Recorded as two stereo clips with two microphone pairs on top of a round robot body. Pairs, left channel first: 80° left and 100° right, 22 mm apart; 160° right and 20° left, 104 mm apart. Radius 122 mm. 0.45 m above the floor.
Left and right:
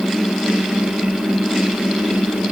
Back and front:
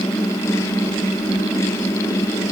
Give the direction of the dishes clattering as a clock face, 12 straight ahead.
No dishes clattering in this recording.